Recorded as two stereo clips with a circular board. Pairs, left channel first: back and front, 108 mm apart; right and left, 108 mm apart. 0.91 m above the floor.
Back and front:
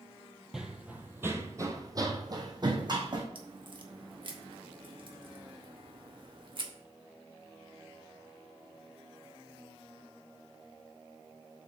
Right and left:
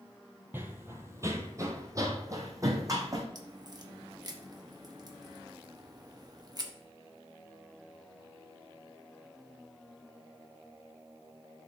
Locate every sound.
0.5 s running footsteps: 80° left, 0.9 m; by 3.2 s 35° left, 1.9 m
3.4 s a crack: 40° left, 0.9 m